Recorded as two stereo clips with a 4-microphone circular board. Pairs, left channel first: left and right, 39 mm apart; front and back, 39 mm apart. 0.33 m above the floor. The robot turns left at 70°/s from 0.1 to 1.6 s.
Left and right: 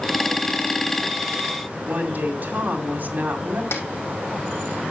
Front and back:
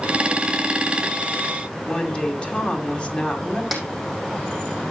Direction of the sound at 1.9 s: 55° right.